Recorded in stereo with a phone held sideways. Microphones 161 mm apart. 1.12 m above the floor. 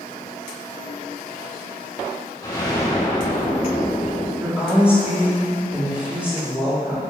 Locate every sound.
2.4 s an explosion: 25° left (ahead or behind), 1.2 m
4.4 s a woman speaking: 5° right (ahead or behind), 2 m